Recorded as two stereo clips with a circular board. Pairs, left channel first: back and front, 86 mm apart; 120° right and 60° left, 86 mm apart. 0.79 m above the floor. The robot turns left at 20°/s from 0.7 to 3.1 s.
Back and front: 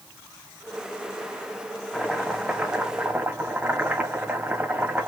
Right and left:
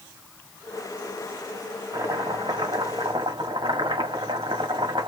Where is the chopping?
95° left, 1.5 m; by 5.1 s 75° left, 1.5 m.